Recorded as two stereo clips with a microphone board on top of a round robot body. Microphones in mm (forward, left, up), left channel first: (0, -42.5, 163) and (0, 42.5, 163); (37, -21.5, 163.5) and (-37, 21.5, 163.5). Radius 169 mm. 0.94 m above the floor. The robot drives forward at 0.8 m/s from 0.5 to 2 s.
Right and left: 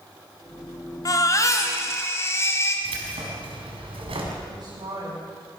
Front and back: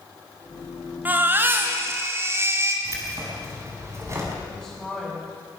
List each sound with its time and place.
1.1 s a baby crying: 140° right, 2 m; by 2.8 s 150° right, 3 m
2.9 s keys jangling: 90° left, 5.5 m
4.5 s a woman speaking: 70° left, 6 m